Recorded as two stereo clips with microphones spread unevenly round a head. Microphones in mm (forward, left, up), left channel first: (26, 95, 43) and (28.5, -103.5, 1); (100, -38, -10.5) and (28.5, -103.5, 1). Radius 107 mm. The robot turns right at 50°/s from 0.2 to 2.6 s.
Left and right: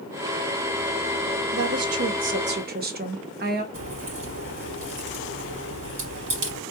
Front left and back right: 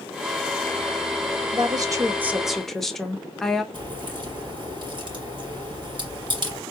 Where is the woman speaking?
100° right, 1.3 m; by 3.6 s 45° right, 1.3 m.